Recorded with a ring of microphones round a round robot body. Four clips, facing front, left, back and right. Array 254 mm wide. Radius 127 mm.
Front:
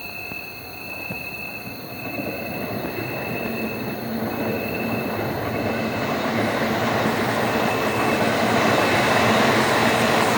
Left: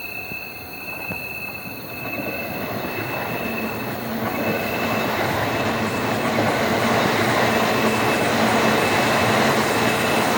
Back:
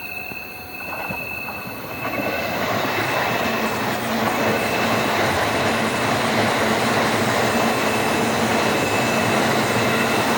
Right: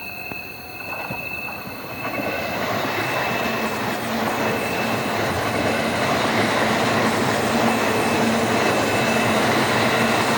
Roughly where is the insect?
Behind left.